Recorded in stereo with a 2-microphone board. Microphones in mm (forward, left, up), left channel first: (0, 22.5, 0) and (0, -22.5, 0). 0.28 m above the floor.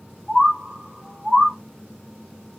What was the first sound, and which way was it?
A bird, 5° left (ahead or behind).